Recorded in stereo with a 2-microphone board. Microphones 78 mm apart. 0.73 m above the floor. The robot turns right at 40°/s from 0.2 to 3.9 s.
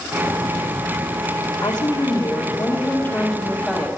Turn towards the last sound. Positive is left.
turn(degrees=-175)